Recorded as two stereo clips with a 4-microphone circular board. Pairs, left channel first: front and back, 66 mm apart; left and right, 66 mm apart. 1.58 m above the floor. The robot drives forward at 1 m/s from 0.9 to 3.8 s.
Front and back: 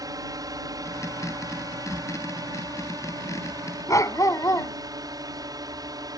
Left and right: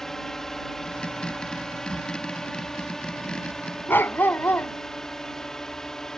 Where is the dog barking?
30° left.